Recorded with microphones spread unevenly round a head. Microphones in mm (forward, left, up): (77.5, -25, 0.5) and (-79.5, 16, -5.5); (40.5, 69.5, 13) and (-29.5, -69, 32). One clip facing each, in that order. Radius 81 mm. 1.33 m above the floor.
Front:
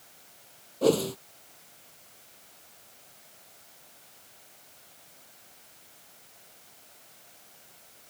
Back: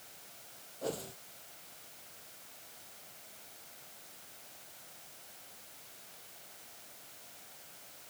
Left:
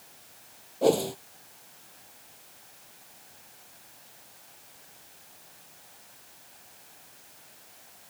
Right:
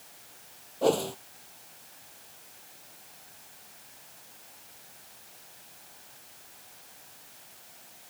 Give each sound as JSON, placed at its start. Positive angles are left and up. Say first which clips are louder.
{"t": 0.8, "sound": "a whoosh", "louder": "front 16 dB, left 2 dB", "azimuth_deg": -15}